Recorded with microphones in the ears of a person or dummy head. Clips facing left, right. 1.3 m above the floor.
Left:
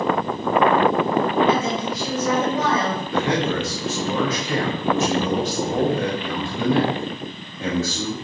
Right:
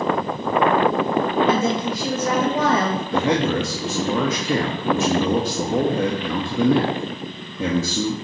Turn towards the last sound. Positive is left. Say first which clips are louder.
# right 2 dB
turn(degrees=-70)  # may be behind; listen again after turning